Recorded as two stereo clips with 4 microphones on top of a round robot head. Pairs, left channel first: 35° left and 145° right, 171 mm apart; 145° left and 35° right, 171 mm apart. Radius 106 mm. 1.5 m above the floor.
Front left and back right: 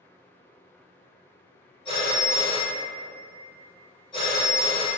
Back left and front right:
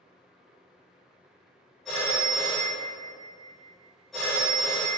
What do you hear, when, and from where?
1.9 s a phone ringing: 60° left, 0.6 m